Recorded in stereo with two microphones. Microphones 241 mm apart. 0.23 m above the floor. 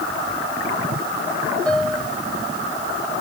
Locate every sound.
1.7 s a piano: 5° left (ahead or behind)